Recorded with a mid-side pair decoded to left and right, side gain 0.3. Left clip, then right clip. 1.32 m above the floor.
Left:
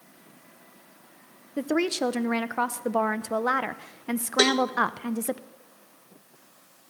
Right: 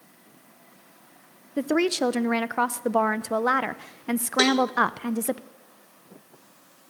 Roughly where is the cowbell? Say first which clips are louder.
Even; ahead.